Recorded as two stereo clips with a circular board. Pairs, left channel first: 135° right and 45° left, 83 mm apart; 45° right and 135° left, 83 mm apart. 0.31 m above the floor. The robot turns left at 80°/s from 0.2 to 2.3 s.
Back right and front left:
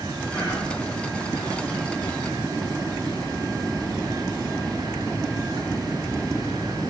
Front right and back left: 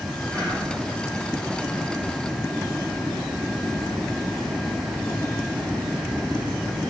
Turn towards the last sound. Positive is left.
turn(degrees=180)